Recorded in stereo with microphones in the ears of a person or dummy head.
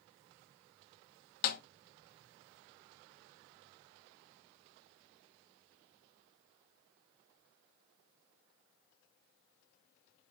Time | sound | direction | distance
1.4 | a snare drum | 50° left (ahead or behind) | 1.0 m